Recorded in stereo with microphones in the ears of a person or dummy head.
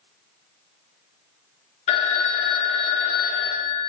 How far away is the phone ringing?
About 0.5 m.